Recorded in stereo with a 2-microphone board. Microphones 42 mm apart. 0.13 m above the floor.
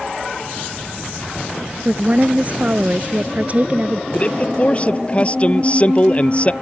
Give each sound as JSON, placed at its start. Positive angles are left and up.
{"t": 1.9, "sound": "a woman speaking", "side_deg": -40}
{"t": 4.1, "sound": "a man speaking", "side_deg": 30}